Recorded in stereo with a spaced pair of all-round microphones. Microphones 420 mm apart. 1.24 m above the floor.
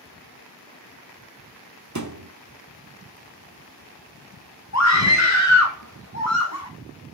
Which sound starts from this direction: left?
A scream, at 4.7 s.